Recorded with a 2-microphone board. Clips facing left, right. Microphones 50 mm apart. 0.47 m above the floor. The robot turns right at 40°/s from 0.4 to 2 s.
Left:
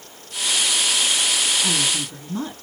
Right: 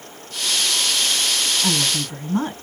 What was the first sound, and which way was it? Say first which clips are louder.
A woman speaking: right 1 dB; 25° right (ahead or behind).